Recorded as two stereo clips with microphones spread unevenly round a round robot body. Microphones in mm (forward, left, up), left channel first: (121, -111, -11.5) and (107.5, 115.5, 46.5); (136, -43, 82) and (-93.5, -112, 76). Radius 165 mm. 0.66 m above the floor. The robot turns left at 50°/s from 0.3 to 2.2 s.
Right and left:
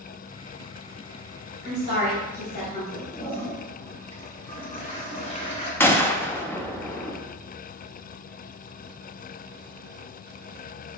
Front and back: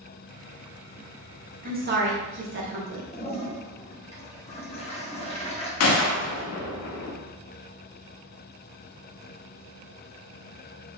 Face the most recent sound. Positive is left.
turn(degrees=-5)